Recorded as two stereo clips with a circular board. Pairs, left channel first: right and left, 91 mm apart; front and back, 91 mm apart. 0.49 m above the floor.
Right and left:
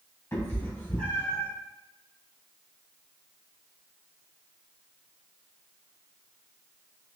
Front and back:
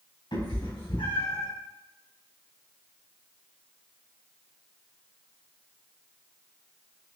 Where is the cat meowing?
25° right, 1.7 m; by 1.5 s 10° right, 3 m.